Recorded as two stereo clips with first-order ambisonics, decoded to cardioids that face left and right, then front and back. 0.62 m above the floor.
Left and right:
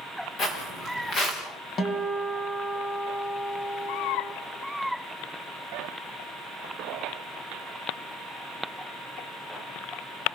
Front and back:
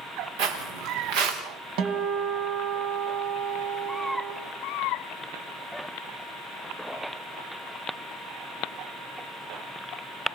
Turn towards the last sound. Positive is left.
turn(degrees=155)